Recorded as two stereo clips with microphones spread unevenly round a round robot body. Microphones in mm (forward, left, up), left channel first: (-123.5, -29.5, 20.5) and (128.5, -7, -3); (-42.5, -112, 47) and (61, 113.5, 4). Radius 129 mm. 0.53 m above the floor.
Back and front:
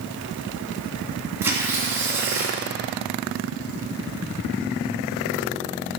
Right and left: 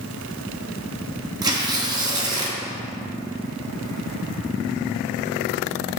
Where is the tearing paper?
65° left, 1.4 m.